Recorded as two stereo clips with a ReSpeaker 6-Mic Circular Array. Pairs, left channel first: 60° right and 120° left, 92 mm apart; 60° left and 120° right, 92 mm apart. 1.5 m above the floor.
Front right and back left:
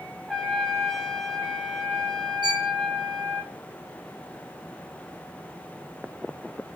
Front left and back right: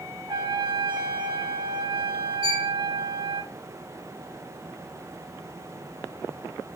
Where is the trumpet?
150° right, 2 m.